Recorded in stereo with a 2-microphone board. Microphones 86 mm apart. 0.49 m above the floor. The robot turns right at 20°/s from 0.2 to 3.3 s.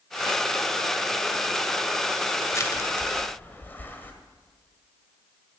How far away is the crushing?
About 1.7 m.